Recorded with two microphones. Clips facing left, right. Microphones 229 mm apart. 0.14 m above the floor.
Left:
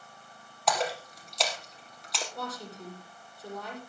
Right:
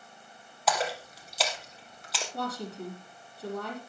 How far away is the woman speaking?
About 5.5 m.